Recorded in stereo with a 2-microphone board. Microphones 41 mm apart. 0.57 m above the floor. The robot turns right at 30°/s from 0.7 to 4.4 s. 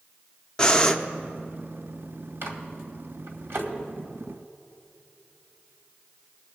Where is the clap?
I don't hear a clap.